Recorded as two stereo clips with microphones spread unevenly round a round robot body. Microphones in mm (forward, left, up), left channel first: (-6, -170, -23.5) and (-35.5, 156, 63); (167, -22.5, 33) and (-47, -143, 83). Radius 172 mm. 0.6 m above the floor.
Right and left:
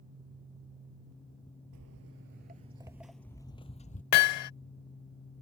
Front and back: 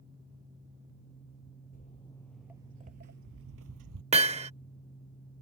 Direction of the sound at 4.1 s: 85° right.